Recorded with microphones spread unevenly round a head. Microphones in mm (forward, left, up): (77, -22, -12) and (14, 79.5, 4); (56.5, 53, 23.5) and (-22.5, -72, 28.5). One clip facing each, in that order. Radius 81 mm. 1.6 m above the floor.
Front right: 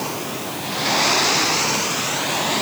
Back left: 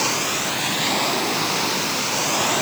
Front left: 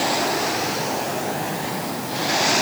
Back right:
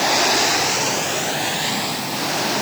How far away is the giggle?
I don't hear a giggle.